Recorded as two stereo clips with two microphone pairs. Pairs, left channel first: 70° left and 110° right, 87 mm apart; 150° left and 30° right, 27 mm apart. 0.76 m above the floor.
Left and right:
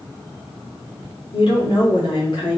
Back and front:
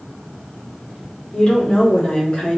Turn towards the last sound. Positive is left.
turn(degrees=90)